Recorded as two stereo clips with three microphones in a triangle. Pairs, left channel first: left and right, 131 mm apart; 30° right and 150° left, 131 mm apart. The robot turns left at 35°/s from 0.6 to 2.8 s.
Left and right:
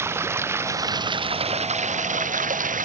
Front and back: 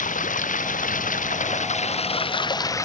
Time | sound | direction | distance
0.0 | running water | 20° right | ?